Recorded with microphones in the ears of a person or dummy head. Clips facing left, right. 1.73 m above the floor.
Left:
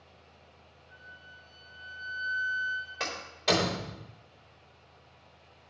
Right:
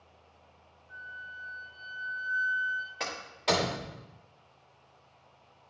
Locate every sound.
0.9 s a flute: 15° left (ahead or behind), 3.5 m
3.0 s a door slam: centre (ahead or behind), 1.4 m